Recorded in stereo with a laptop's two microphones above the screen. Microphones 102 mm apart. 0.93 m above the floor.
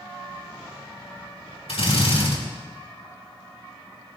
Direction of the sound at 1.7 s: 80° left.